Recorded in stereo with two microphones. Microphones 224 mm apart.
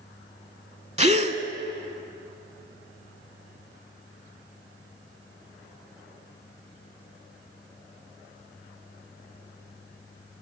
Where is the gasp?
30° right (ahead or behind), 0.6 m.